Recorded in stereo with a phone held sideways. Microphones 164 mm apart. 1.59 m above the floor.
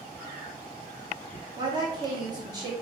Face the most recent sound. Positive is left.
turn(degrees=-25)  # may be behind; listen again after turning